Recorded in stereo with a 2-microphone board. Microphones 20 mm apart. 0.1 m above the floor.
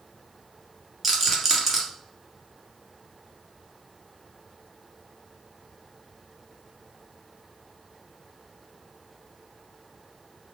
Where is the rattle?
10° right (ahead or behind), 1.7 m.